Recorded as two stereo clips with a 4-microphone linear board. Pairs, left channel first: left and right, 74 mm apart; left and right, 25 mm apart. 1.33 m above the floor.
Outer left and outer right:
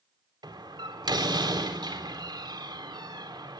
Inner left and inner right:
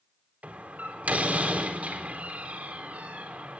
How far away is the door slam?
About 3.5 m.